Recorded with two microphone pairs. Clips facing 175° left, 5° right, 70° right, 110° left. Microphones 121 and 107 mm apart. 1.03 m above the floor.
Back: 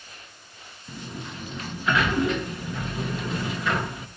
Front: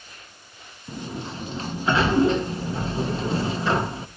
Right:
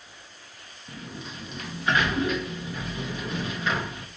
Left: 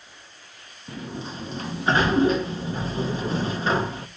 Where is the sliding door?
55° left, 0.6 m.